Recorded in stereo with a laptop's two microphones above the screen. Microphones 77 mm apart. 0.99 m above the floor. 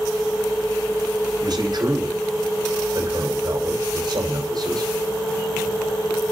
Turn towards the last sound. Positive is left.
turn(degrees=-65)  # may be behind; listen again after turning